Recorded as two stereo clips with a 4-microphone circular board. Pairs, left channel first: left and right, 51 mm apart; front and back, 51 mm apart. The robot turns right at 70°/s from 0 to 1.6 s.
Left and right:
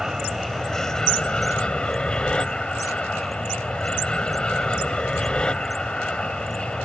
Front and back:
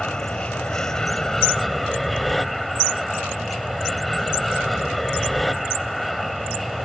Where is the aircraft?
30° right; by 6.9 s 85° left.